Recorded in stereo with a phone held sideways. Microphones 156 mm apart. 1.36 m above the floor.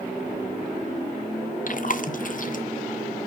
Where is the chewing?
60° left (ahead or behind), 0.7 m.